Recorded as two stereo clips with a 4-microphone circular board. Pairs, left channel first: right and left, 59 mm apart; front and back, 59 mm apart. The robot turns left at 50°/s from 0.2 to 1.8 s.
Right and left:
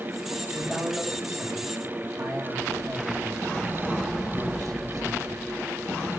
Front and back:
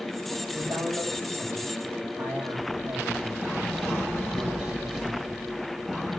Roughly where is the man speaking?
Behind.